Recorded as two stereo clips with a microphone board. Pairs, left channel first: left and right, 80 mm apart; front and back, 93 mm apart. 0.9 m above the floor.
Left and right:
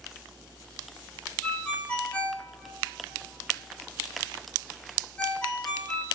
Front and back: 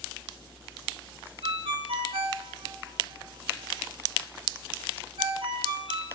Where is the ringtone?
165° left, 1.7 m.